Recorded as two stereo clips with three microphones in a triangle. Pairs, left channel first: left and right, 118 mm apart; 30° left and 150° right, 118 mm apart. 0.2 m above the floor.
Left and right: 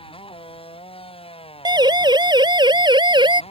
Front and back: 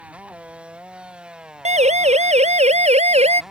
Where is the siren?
140° right; by 3.4 s 135° right.